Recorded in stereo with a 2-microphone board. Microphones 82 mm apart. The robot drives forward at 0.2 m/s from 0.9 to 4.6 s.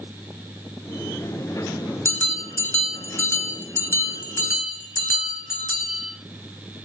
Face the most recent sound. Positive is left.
turn(degrees=30)  # may be behind; listen again after turning